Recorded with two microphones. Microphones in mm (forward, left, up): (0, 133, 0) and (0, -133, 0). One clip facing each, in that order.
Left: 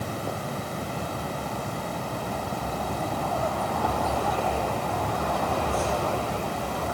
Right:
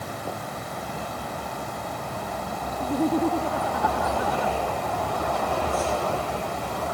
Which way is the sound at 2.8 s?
85° right.